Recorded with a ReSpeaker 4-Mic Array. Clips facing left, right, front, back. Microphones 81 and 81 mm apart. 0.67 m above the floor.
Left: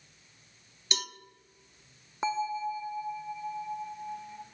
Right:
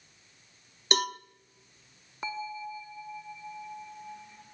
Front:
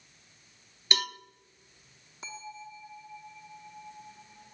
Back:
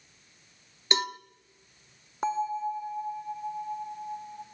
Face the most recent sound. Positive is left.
turn(degrees=155)